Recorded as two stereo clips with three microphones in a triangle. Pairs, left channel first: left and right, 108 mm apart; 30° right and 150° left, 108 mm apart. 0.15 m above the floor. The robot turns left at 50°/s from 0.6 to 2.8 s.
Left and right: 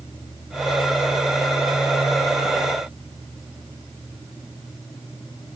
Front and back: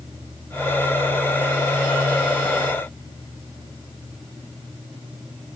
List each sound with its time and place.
Only background noise.